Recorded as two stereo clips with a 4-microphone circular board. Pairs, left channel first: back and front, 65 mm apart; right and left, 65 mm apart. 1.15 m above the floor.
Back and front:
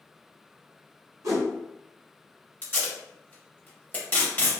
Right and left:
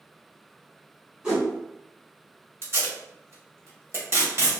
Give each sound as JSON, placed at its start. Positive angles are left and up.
{"t": 1.2, "sound": "a whoosh", "azimuth_deg": 20, "distance_m": 1.9}
{"t": 2.6, "sound": "tape being pulled", "azimuth_deg": 120, "distance_m": 0.9}